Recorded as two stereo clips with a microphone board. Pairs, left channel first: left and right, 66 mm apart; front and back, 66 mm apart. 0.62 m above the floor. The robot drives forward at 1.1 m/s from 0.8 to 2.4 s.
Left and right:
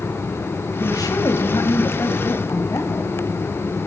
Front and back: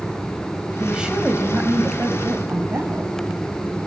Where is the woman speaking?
95° left, 2.5 m; by 3.1 s 130° left, 3.5 m.